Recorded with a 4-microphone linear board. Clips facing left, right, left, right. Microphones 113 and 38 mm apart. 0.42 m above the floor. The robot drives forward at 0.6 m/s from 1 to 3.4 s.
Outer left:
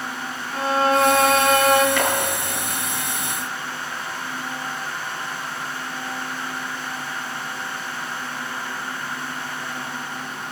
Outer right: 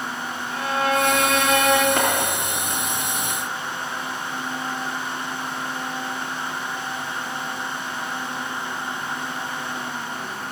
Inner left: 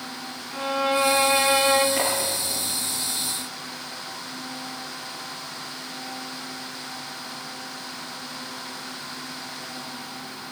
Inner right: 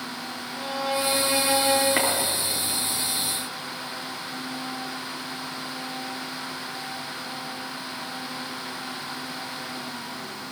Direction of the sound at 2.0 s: 40° right (ahead or behind).